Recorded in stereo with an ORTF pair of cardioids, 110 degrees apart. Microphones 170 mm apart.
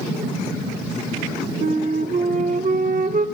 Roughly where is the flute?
Ahead right.